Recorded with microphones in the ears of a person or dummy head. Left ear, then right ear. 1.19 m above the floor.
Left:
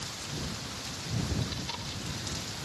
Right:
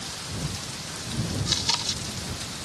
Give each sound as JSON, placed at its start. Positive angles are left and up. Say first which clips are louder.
{"t": 1.5, "sound": "chewing", "louder": "right 12 dB", "side_deg": -40}